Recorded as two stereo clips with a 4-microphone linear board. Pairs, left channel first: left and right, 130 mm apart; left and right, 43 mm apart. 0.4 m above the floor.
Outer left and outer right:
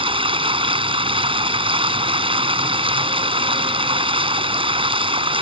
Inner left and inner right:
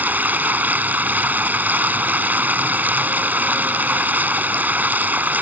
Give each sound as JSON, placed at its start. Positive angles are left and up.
{"t": 0.0, "sound": "running water", "side_deg": -45}